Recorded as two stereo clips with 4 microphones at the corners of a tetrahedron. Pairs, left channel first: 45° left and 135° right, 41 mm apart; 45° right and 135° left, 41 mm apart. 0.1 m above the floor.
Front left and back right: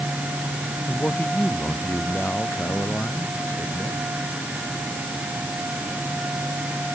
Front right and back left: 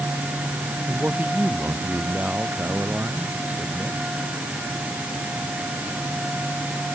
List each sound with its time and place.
0.9 s a man speaking: 90° left; by 4.0 s 80° left